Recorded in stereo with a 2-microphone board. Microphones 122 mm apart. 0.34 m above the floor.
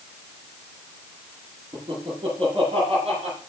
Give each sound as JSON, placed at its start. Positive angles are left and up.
{"t": 1.7, "sound": "laughter", "side_deg": -40, "distance_m": 10.0}